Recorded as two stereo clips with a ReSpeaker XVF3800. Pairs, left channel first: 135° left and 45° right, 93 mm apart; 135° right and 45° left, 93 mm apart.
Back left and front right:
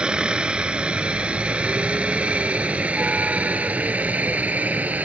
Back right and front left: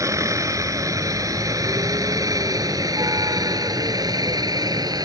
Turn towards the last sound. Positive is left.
turn(degrees=20)